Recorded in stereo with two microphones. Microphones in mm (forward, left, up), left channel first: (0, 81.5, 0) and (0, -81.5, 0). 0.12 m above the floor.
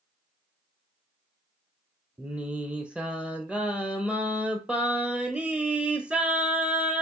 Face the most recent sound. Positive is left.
turn(degrees=-5)  # may be behind; listen again after turning